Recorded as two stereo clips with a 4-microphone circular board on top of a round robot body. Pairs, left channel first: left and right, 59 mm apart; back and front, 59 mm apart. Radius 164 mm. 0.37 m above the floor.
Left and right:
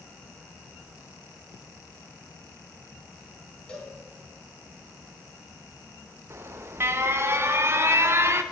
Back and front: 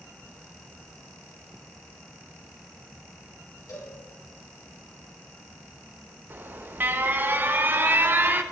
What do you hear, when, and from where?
3.7 s a cowbell: 165° left, 4.5 m
6.3 s an alarm: 50° right, 1.2 m